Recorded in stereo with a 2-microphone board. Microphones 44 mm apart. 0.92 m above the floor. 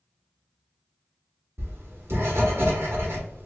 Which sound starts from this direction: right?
Writing, at 1.6 s.